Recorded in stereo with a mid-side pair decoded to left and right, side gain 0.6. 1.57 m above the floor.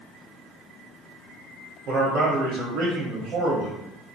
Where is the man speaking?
60° right, 1.0 m.